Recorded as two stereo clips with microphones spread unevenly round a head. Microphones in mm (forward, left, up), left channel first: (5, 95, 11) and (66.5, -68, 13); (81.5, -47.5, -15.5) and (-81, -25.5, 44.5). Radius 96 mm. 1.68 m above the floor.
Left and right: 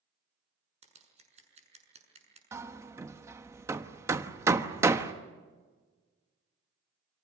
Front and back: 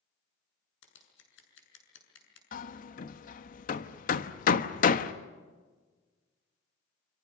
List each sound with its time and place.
0.8 s scissors: 20° right, 6.5 m
2.5 s hammering: 20° right, 1.1 m